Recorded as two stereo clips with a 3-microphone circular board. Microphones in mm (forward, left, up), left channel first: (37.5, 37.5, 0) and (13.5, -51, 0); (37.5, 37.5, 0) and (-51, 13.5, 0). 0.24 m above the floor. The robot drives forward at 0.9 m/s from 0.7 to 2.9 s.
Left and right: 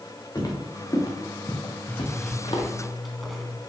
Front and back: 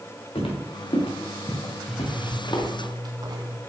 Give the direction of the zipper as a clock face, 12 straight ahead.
9 o'clock.